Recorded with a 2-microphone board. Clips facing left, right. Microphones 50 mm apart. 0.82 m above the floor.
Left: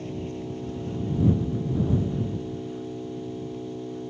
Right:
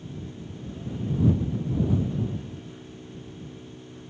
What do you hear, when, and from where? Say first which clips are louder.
0.0 s an engine running: left 7 dB; 75° left (ahead or behind)